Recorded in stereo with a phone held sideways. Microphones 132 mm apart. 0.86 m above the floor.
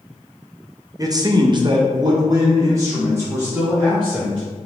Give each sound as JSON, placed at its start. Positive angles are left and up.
{"t": 1.0, "sound": "a man speaking", "side_deg": -25, "distance_m": 0.5}